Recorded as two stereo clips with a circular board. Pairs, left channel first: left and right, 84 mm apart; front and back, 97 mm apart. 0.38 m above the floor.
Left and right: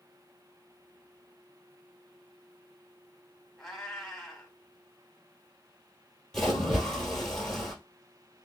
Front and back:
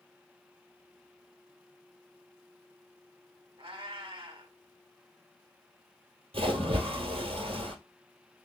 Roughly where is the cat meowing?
Behind.